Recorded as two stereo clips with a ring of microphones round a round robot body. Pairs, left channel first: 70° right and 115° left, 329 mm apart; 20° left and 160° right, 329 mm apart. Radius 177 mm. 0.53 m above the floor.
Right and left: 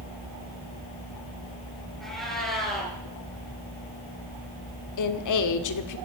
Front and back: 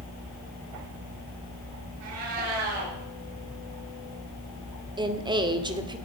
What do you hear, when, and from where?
2.0 s a cat meowing: 155° right, 4.5 m
5.0 s a woman speaking: 80° right, 1.4 m